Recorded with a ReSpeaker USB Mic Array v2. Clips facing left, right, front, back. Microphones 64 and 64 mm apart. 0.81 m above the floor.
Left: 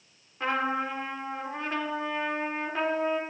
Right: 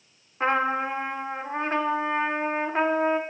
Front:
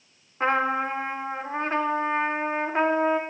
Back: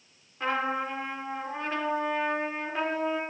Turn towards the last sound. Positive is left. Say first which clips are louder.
# right 4 dB, front 5 dB
turn(degrees=-40)